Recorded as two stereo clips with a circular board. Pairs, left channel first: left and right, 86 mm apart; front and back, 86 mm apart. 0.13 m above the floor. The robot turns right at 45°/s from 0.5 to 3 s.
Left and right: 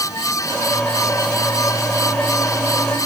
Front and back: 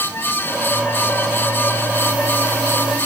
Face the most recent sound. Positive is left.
No sound to turn to.